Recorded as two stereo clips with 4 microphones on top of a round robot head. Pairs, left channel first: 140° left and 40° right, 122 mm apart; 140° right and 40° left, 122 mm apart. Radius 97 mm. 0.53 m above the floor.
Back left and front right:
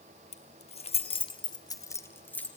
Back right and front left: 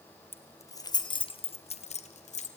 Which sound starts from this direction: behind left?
Keys jangling, at 0.3 s.